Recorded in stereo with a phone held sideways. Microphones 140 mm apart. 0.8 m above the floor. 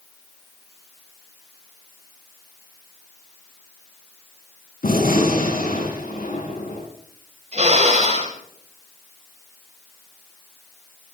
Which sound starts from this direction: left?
A gunshot, at 4.8 s.